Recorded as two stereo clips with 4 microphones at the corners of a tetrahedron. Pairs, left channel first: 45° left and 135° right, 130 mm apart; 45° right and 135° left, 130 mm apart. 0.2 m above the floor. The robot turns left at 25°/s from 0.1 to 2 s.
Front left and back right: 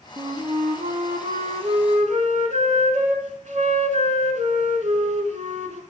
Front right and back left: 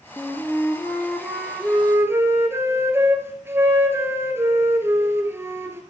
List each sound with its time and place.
0.2 s a flute: 110° right, 1.0 m; by 5.8 s 155° right, 1.0 m